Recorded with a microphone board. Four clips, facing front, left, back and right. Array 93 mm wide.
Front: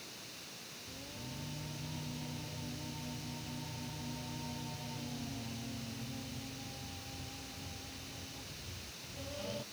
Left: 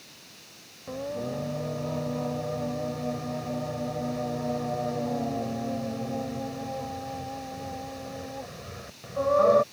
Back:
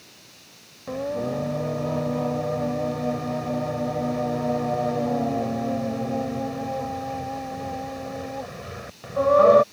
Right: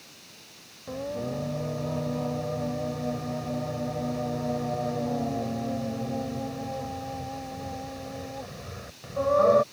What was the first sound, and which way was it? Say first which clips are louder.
Singing: even, back 24 dB; straight behind.